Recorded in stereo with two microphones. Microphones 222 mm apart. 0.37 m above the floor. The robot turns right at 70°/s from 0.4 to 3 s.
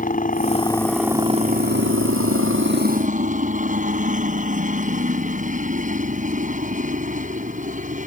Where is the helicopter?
140° left; by 8.1 s 35° right.